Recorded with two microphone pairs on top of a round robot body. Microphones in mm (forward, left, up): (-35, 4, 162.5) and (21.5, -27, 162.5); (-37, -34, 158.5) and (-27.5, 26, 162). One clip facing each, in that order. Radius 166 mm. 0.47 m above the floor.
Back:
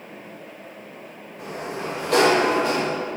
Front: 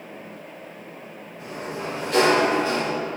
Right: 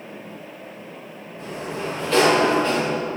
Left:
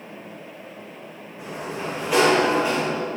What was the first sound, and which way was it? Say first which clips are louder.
A sliding door: back 1 dB, right 1 dB; 160° left.